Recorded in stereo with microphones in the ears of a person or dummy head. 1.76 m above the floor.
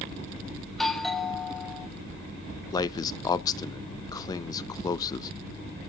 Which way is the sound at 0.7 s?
Centre (ahead or behind).